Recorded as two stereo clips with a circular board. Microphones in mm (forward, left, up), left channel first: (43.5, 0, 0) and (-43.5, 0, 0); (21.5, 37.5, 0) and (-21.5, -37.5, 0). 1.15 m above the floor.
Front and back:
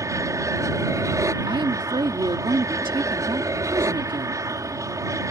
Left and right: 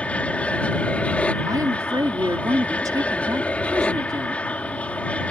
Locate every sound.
0.0 s an aircraft: 135° left
1.5 s a woman speaking: 165° right